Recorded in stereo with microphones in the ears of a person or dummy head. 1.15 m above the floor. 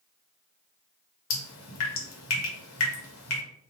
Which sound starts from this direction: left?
Dripping, at 1.3 s.